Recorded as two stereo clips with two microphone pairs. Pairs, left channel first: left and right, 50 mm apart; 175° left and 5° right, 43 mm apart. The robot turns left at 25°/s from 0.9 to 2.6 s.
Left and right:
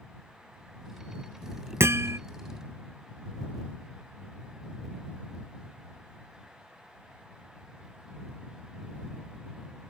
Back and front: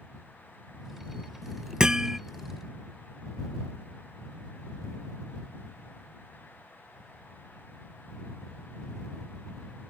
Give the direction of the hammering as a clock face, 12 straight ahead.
3 o'clock.